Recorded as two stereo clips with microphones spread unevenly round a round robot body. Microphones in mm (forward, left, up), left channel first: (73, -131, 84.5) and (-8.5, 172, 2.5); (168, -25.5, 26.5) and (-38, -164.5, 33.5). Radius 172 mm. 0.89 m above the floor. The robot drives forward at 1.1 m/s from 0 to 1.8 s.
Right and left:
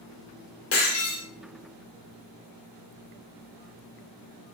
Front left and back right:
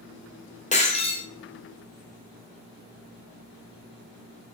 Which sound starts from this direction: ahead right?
Breaking glass, at 0.7 s.